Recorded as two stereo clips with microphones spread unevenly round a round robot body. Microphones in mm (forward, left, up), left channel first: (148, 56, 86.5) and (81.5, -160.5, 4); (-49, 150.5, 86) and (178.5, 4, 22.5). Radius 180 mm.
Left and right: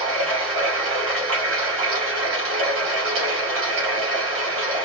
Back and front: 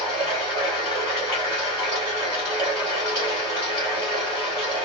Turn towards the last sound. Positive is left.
turn(degrees=-130)